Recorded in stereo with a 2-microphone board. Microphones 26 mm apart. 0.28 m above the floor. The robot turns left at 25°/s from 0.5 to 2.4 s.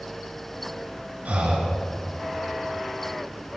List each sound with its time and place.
1.2 s breathing: 75° right (ahead or behind), 3 m; by 1.8 s 70° right (ahead or behind), 3 m